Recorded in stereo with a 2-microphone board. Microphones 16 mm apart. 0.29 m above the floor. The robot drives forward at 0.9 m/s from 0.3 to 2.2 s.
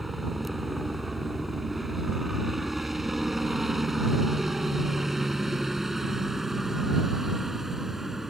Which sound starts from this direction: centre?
A helicopter, at 0.0 s.